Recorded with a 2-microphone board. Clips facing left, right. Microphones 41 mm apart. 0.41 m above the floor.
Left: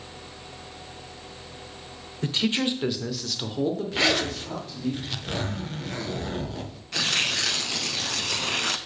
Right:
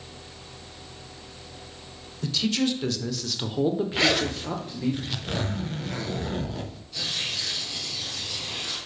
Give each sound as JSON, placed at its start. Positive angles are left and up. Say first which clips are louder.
{"t": 2.2, "sound": "a man speaking", "louder": "even", "side_deg": 40, "distance_m": 1.0}
{"t": 3.9, "sound": "a zipper", "louder": "even", "side_deg": 0, "distance_m": 0.7}
{"t": 6.9, "sound": "tearing paper", "louder": "left 6 dB", "side_deg": 75, "distance_m": 0.7}